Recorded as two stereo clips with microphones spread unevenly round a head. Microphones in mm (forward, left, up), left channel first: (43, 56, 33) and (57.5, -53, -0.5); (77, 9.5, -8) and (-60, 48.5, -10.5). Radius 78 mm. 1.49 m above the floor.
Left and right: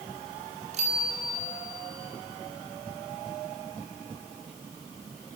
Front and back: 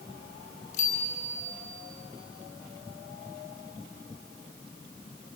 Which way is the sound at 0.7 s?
60° right.